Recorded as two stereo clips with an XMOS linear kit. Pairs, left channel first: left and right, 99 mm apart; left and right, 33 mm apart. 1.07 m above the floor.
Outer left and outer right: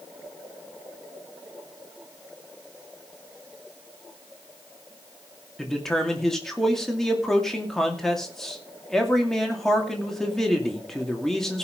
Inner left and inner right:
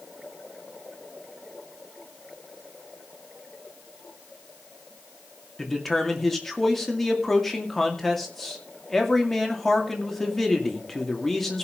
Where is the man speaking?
5° left (ahead or behind), 2.5 m.